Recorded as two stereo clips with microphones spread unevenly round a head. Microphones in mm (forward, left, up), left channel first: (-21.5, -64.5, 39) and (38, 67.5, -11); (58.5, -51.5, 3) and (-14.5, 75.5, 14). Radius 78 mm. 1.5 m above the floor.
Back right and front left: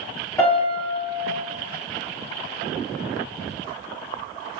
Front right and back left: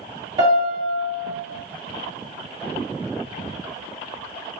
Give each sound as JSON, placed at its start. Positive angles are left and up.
{"t": 0.4, "sound": "a piano", "azimuth_deg": 180, "distance_m": 2.0}